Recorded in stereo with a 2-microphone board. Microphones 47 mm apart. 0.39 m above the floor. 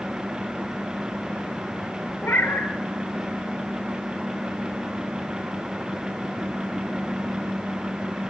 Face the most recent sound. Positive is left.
turn(degrees=55)  # may be behind; listen again after turning